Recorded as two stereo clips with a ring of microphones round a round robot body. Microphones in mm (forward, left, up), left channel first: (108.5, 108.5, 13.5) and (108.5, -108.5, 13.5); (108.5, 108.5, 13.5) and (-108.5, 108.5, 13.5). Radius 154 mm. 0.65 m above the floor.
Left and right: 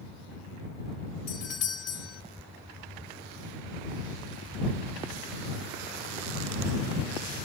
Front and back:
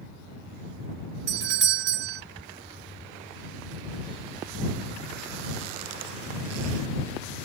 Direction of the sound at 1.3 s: 150° left.